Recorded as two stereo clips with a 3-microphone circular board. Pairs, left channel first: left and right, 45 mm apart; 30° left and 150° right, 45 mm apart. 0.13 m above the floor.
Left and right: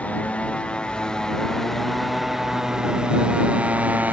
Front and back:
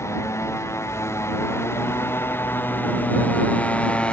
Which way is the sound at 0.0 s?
30° left.